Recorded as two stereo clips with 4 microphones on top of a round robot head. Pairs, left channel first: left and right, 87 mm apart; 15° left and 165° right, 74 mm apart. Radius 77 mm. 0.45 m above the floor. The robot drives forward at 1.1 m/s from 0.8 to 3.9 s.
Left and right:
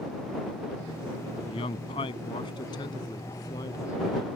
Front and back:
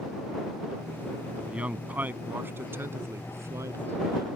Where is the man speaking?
120° left; by 4.3 s 145° left.